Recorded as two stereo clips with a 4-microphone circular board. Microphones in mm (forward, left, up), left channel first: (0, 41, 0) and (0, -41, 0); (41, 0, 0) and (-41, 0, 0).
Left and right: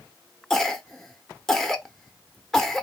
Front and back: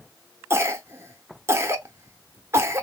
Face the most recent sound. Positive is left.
turn(degrees=170)